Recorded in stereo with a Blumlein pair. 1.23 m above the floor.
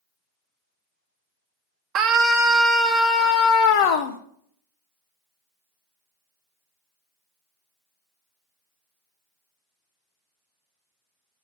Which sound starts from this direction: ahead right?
A scream, at 1.9 s.